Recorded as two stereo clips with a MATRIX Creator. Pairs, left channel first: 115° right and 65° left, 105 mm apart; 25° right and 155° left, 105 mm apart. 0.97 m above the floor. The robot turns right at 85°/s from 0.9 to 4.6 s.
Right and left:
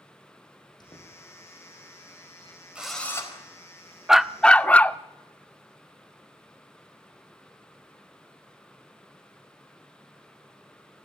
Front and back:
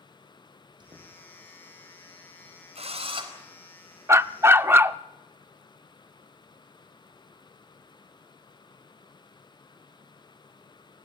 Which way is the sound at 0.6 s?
160° right.